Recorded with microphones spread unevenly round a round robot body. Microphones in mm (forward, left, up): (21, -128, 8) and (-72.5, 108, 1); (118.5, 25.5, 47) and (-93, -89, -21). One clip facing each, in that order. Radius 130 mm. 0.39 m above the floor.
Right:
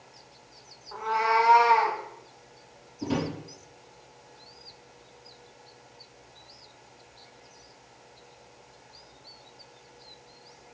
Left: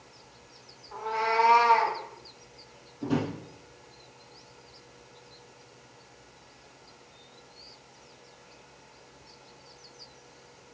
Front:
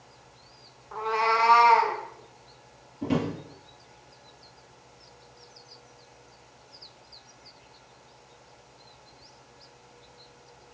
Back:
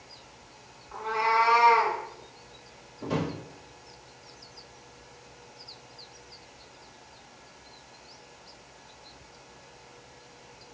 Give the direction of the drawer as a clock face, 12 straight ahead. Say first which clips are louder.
Left 1 dB, front 4 dB; 12 o'clock.